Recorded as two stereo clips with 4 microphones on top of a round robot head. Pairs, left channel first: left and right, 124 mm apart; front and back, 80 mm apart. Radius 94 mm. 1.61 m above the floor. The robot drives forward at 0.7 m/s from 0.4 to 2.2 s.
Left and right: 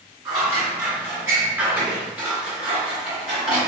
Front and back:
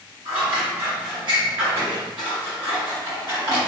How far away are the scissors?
About 1.3 m.